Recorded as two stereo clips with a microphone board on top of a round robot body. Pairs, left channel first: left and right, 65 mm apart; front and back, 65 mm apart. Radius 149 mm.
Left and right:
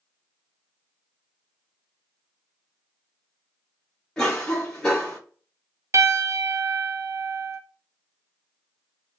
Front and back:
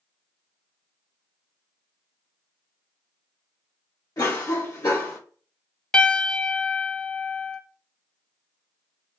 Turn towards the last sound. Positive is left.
turn(degrees=-75)